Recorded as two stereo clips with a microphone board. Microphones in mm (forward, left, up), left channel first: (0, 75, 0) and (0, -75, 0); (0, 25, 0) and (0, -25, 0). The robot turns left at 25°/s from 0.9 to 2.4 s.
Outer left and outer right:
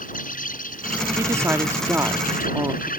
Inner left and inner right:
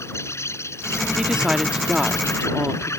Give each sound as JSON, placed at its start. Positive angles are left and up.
{"t": 0.0, "sound": "an insect", "azimuth_deg": 110}
{"t": 1.2, "sound": "a woman speaking", "side_deg": -20}